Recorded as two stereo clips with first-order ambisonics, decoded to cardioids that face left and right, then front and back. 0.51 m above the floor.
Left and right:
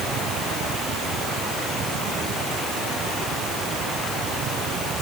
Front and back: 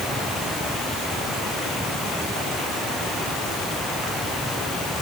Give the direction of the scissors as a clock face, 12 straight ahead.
No scissors in this recording.